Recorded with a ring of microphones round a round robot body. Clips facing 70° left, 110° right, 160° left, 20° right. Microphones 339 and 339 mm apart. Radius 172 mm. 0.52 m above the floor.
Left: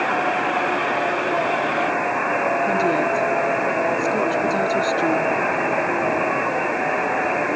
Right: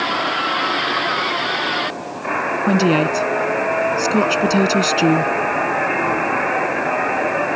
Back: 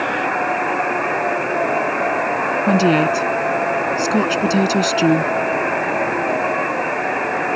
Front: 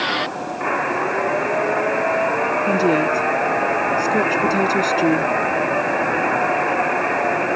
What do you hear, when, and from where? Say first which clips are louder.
2.7 s a woman speaking: right 9 dB, back 3 dB; 150° right